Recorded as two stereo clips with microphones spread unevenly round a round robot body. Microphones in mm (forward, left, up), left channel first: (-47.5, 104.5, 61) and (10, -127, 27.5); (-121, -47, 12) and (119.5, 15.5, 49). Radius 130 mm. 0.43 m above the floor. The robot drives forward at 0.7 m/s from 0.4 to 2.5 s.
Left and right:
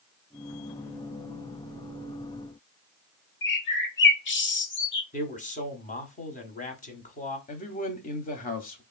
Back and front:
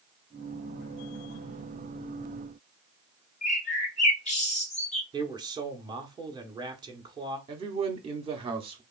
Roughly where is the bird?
Behind left.